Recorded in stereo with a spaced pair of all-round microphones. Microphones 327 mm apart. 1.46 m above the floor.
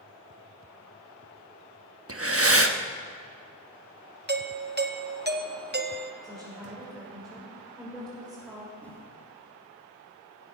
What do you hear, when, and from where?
2.1 s breathing: 40° right (ahead or behind), 1.1 m
4.3 s a doorbell: 30° right (ahead or behind), 1.1 m
6.2 s a woman speaking: 5° left (ahead or behind), 7 m
8.8 s a whoosh: 5° left (ahead or behind), 3 m